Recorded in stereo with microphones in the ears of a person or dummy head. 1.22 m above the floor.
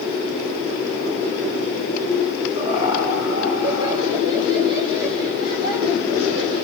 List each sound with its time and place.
2.5 s laughter: 20° right (ahead or behind), 2.5 m